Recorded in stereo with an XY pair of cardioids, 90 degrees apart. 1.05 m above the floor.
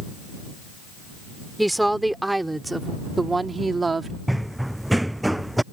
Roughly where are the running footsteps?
Ahead.